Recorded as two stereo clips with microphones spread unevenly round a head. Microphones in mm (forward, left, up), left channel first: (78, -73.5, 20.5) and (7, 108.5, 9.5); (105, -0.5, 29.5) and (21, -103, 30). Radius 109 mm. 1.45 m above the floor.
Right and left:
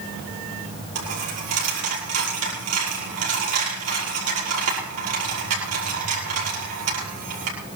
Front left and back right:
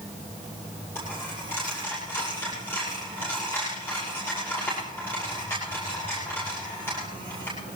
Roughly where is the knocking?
I don't hear knocking.